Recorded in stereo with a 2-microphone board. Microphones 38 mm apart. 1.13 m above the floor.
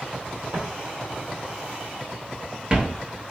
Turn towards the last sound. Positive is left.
turn(degrees=-15)  # may be behind; listen again after turning